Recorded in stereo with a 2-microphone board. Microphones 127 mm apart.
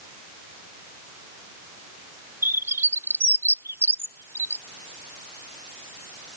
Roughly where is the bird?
Centre.